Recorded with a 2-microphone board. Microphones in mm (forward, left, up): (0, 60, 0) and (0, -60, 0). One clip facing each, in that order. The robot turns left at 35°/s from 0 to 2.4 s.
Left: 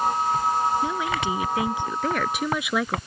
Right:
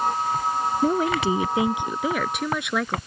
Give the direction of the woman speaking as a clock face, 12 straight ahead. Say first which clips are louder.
Right 5 dB; 4 o'clock.